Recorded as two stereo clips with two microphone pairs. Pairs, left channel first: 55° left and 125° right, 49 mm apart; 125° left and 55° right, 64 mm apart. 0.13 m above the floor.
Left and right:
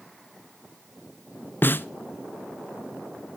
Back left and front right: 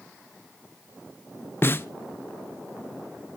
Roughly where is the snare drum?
Left.